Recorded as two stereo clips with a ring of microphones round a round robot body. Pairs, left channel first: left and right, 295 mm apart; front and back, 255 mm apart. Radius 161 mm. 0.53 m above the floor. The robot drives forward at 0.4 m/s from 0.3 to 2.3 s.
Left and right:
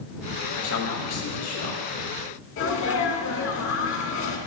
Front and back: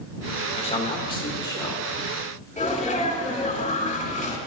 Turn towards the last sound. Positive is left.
turn(degrees=60)